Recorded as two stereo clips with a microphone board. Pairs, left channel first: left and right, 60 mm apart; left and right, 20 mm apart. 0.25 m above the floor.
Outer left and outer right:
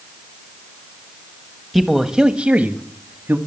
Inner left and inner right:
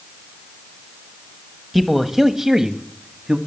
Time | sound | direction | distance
1.7 | a man speaking | 5° left (ahead or behind) | 1.1 m